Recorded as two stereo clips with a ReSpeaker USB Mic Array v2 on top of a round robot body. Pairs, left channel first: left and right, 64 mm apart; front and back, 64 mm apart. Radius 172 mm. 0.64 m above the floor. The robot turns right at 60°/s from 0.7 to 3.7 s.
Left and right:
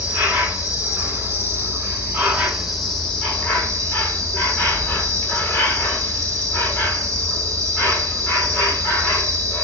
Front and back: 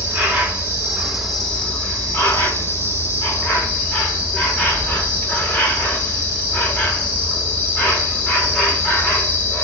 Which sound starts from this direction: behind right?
An insect, at 0.0 s.